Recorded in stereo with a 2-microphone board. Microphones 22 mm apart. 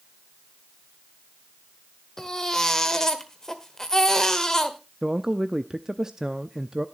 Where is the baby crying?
20° left (ahead or behind), 1.4 m.